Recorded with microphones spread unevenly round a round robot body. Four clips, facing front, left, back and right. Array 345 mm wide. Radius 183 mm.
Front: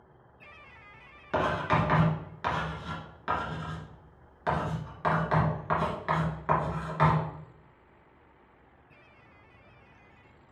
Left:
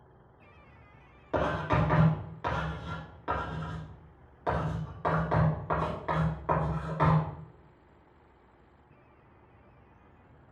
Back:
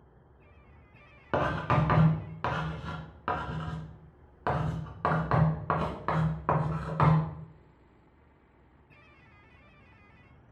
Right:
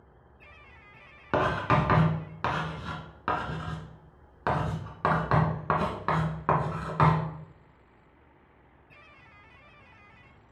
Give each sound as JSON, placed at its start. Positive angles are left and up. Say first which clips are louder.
{"t": 1.3, "sound": "writing", "louder": "right 3 dB, front 1 dB", "azimuth_deg": -115, "distance_m": 2.5}